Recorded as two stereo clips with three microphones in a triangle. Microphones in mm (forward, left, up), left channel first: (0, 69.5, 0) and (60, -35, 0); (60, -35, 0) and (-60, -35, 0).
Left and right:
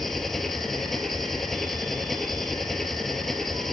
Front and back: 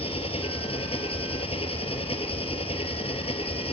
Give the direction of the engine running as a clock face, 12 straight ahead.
11 o'clock.